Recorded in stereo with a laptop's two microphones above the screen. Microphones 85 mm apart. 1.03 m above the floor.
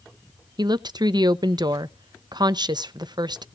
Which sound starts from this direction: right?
A woman speaking, at 0.6 s.